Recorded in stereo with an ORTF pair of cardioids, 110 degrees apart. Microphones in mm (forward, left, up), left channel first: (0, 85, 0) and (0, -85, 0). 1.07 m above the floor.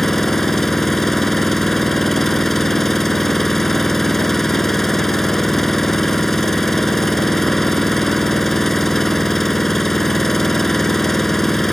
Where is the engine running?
Straight ahead.